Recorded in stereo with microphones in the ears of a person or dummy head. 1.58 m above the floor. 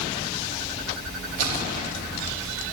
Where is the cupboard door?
I don't hear a cupboard door.